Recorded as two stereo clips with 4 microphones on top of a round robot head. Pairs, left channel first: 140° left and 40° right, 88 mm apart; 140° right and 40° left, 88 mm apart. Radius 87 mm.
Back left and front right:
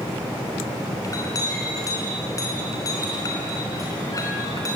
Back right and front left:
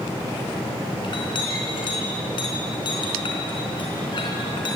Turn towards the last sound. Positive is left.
turn(degrees=-170)